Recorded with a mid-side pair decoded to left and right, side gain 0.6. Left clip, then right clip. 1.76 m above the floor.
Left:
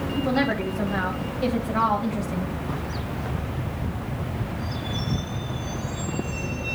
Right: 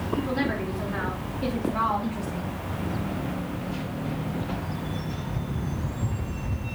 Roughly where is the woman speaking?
Ahead left.